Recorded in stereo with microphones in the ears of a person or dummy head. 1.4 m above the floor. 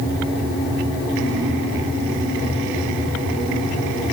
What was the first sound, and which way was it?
Only background noise.